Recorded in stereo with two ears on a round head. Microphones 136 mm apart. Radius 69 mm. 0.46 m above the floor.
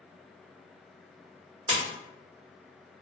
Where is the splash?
30° right (ahead or behind), 1.1 m.